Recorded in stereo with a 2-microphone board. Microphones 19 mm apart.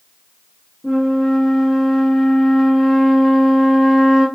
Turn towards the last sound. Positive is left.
turn(degrees=20)  # may be behind; listen again after turning